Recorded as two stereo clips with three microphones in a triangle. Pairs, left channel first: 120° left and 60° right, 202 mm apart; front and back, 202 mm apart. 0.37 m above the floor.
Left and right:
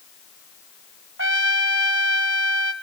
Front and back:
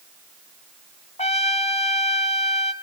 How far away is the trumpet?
About 0.8 m.